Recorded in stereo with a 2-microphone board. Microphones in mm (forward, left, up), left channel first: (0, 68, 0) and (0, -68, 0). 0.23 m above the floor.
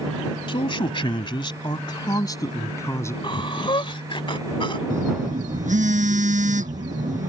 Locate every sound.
0.5 s a man speaking: 40° left (ahead or behind); by 3.1 s 20° left (ahead or behind)
3.2 s breathing: 40° left (ahead or behind)
4.9 s a phone buzzing: 70° right (ahead or behind)